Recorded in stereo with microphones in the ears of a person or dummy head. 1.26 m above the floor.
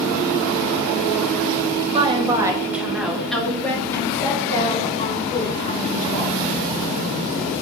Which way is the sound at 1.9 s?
30° right (ahead or behind).